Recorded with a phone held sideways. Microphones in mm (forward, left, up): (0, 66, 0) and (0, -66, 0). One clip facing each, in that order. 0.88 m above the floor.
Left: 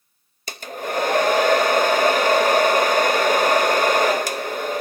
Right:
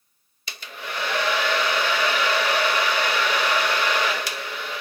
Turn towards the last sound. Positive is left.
turn(degrees=45)  # may be behind; listen again after turning